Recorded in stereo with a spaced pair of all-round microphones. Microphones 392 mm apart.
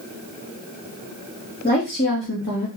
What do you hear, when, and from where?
1.6 s a woman speaking: 25° left (ahead or behind), 2 m; by 2.7 s 50° left (ahead or behind), 1.5 m